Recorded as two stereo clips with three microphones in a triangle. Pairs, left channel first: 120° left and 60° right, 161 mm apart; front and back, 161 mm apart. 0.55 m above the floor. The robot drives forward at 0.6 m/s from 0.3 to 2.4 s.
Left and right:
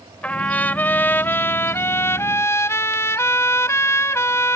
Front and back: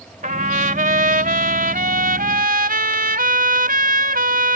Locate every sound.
0.2 s a trumpet: 160° right; by 4.6 s 170° right